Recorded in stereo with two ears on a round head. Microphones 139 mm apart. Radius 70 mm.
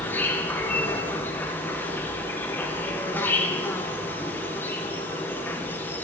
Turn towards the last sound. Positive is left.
turn(degrees=15)  # may be behind; listen again after turning